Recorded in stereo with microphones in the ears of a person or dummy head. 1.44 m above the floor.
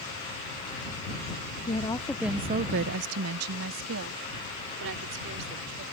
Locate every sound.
1.7 s a woman speaking: 30° left (ahead or behind); by 5.8 s 65° right (ahead or behind)